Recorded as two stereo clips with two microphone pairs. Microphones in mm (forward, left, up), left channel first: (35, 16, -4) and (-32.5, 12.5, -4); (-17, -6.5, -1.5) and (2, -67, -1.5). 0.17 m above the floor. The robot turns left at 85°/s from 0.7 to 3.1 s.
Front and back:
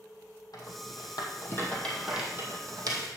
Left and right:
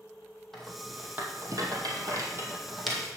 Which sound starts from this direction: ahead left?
A rattle, at 0.5 s.